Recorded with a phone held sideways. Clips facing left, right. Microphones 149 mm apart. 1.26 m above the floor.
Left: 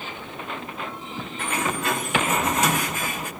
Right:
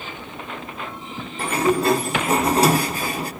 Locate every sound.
1.4 s a sliding door: 35° right (ahead or behind), 1.0 m